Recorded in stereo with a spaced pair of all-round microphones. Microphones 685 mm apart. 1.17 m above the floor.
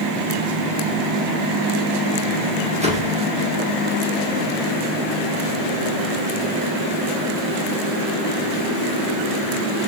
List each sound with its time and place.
2.8 s a whoosh: 10° right (ahead or behind), 1.2 m